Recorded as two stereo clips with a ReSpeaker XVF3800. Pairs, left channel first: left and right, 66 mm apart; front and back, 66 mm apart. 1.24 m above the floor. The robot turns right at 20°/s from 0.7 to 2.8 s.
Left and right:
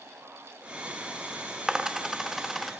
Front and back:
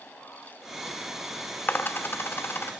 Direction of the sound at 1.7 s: 20° right.